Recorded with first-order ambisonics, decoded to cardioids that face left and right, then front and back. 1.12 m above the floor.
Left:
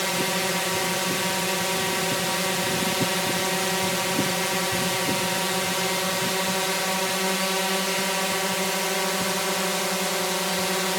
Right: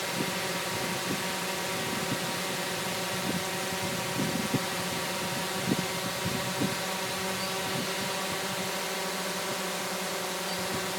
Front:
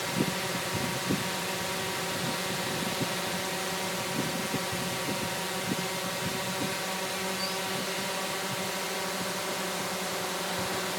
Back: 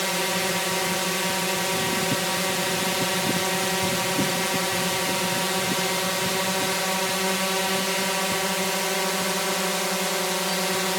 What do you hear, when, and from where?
0.0 s a drone: 135° left